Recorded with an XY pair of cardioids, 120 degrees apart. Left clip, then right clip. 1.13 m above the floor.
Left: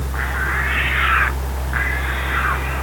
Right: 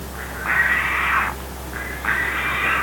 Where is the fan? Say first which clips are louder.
Left 5 dB; 65° left.